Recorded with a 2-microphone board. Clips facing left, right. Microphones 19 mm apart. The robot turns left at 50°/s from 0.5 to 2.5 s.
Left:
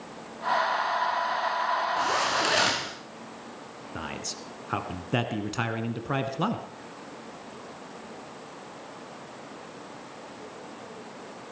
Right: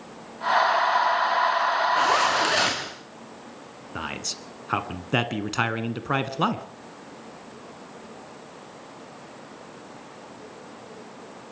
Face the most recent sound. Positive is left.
turn(degrees=-25)  # may be behind; listen again after turning